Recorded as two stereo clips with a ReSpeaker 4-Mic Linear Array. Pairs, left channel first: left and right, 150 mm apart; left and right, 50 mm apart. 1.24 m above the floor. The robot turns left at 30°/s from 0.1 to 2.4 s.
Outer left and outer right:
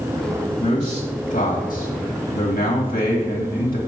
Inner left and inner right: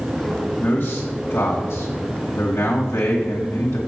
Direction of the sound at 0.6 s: 140° left.